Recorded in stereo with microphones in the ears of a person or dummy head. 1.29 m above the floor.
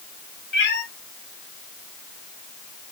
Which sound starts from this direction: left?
A cat meowing, at 0.5 s.